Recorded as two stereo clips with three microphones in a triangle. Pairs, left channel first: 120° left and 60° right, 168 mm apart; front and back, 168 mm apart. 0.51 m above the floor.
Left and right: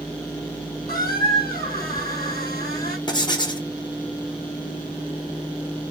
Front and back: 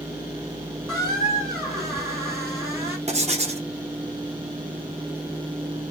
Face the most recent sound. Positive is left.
turn(degrees=170)